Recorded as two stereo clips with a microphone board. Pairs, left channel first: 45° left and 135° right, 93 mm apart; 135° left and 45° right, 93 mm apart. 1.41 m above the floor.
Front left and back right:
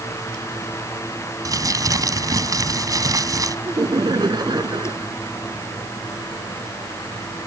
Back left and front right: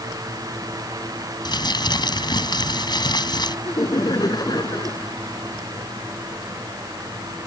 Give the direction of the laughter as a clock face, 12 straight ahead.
6 o'clock.